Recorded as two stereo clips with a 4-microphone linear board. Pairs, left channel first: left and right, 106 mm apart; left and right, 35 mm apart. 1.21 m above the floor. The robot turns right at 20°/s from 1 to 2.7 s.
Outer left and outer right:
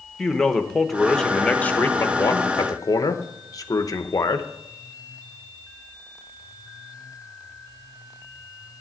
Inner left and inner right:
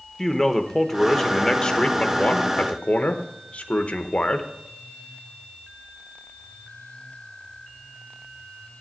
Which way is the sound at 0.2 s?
5° left.